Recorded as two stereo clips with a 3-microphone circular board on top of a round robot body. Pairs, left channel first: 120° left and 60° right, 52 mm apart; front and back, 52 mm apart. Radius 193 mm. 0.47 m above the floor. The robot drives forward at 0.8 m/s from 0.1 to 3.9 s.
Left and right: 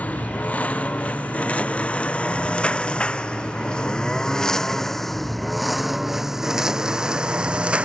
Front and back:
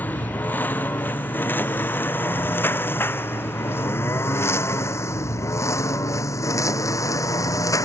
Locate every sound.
0.0 s a lawn mower: 60° left; by 7.8 s 10° left